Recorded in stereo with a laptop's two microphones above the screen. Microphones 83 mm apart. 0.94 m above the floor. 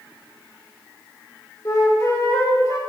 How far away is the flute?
About 1.5 m.